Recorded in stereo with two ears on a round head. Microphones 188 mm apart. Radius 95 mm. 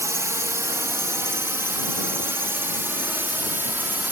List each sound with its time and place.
0.0 s a drone: 15° right (ahead or behind); by 4.1 s 10° right (ahead or behind)